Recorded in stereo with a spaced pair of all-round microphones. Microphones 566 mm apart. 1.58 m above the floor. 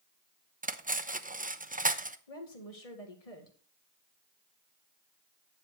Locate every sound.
0.6 s cutlery clinking: 15° right (ahead or behind), 0.6 m
2.3 s a woman speaking: 85° left, 2 m